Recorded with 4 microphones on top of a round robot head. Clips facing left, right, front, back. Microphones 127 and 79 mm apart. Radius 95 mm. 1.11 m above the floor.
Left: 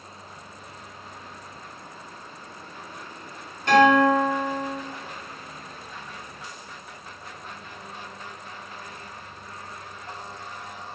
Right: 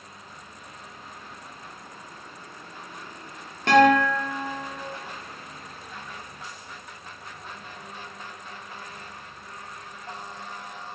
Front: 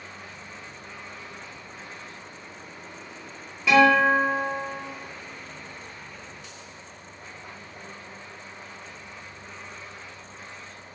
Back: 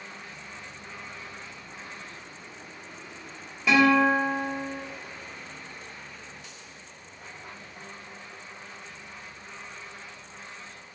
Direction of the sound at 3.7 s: 90° right.